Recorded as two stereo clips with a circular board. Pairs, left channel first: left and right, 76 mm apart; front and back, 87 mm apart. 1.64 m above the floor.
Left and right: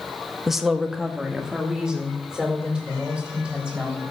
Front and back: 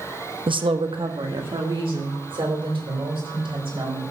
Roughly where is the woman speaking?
Behind.